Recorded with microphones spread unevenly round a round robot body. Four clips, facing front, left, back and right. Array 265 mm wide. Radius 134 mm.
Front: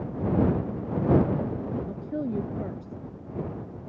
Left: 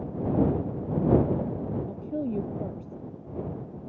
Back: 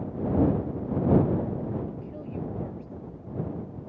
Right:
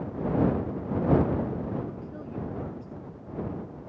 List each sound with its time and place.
1.9 s a woman speaking: 45° left